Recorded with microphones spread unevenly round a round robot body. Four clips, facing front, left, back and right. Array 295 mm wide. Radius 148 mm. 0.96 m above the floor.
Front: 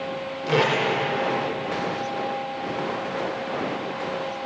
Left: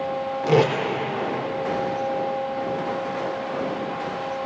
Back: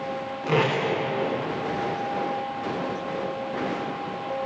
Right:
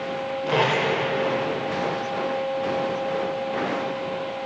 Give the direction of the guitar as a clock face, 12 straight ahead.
I don't hear a guitar.